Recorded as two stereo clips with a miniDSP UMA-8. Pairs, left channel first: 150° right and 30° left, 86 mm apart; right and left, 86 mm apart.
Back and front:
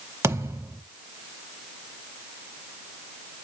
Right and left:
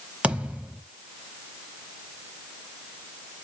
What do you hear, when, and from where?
0.2 s a thud: 25° left, 0.9 m